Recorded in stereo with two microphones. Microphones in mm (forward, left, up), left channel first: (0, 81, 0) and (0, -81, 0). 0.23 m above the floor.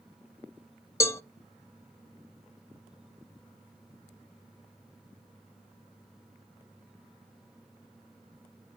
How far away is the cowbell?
About 0.6 m.